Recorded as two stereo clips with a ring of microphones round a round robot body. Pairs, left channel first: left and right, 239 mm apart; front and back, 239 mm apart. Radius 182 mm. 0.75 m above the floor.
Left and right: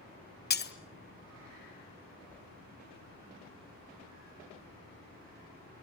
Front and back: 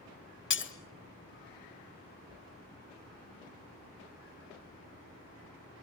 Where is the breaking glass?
40° left, 1.6 m.